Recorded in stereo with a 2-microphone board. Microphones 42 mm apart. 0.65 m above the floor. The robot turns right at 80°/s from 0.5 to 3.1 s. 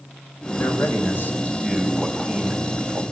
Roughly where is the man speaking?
Left.